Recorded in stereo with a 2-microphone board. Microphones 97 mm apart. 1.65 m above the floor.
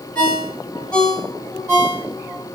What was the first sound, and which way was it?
A ringtone, 10° left (ahead or behind).